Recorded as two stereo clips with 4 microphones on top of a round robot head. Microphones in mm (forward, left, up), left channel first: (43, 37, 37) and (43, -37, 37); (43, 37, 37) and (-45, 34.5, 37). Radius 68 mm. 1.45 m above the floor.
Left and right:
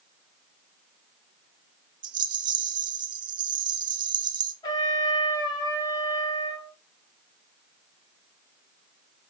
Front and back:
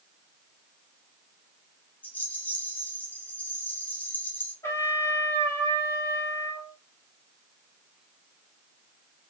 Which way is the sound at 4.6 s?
65° left.